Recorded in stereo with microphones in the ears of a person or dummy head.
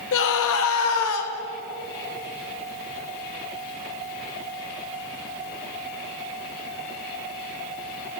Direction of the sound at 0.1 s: 70° left (ahead or behind).